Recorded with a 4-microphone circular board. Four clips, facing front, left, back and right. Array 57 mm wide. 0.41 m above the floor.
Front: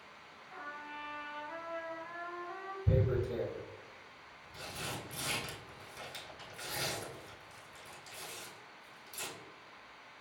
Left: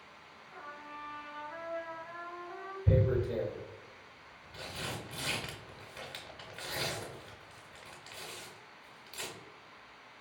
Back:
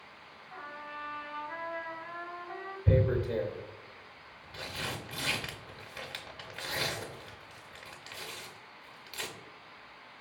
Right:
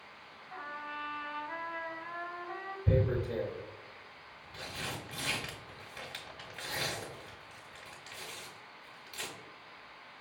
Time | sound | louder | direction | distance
0.5 | a trumpet | right 5 dB, back 2 dB | 105° right | 0.7 m
2.9 | tearing paper | left 1 dB, back 5 dB | 175° left | 0.7 m